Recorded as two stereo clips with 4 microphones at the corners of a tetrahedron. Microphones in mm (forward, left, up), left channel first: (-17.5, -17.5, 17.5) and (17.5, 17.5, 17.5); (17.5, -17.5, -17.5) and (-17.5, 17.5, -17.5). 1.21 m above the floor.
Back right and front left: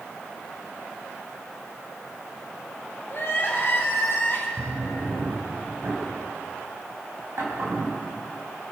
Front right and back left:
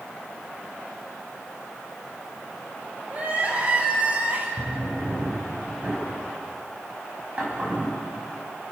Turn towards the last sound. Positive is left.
turn(degrees=75)